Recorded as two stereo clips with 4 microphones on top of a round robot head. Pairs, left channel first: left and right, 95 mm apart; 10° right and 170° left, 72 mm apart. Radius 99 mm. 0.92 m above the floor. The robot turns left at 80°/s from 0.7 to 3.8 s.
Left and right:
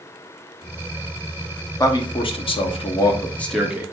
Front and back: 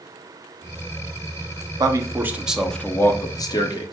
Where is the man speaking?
145° left, 1.0 m; by 3.9 s 15° right, 1.0 m.